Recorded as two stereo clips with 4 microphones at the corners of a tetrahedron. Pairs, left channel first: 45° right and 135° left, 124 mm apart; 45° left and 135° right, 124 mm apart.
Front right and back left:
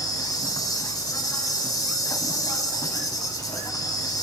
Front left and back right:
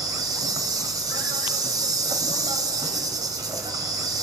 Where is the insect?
90° right, 3 m.